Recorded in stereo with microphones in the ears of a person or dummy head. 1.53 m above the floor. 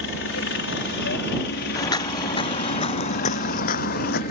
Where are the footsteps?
20° left (ahead or behind); by 4.2 s 55° left (ahead or behind).